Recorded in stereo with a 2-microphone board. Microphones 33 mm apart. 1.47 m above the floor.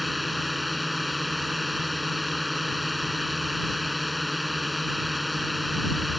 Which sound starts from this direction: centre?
A drone, at 0.0 s.